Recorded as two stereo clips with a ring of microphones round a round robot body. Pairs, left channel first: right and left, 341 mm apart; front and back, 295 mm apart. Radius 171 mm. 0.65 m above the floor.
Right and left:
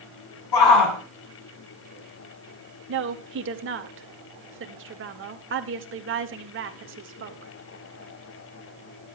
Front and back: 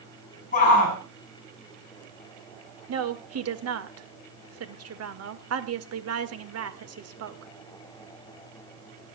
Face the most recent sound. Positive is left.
turn(degrees=145)